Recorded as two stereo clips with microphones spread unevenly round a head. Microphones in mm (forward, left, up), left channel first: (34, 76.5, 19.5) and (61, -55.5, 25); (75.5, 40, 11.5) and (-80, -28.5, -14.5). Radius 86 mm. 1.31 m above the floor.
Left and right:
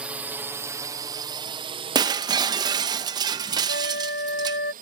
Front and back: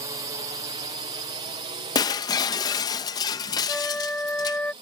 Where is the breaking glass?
30° right.